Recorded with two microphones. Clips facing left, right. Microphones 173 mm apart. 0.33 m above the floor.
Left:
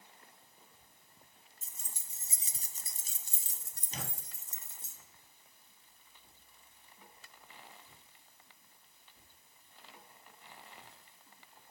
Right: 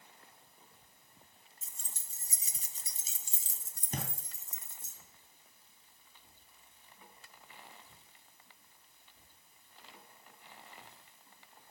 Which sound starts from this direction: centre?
Keys jangling, at 1.6 s.